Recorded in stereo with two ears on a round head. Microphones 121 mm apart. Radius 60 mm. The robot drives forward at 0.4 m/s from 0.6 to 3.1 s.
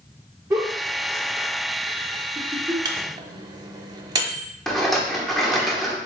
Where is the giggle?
20° right (ahead or behind), 1.0 m.